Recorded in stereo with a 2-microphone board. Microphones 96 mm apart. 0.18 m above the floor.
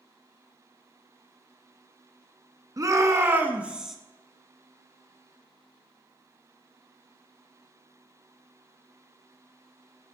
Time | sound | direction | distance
2.8 | a shout | 40° right (ahead or behind) | 1.5 m